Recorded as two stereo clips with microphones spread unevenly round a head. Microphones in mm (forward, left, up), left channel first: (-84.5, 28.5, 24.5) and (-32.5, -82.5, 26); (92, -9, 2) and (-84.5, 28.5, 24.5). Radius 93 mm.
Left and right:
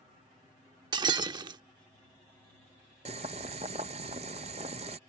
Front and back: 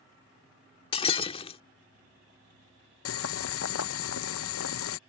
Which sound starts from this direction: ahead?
Boiling, at 3.0 s.